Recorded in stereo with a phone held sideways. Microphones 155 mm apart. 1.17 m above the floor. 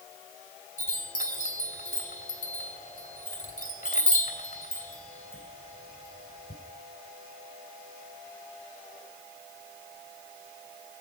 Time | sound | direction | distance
0.8 | a chime | 60° left (ahead or behind) | 3 m